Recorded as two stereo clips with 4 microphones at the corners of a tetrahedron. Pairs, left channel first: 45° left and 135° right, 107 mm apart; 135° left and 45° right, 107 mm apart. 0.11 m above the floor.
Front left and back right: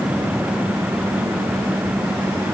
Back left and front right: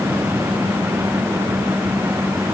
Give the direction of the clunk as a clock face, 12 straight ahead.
No clunk in this recording.